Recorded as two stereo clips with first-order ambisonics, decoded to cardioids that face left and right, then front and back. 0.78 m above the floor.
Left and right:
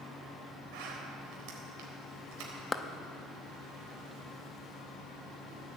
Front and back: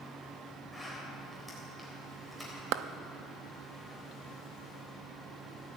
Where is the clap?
165° left, 0.6 m.